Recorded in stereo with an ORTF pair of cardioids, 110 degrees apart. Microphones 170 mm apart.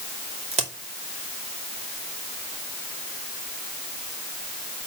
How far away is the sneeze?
No sneeze in this recording.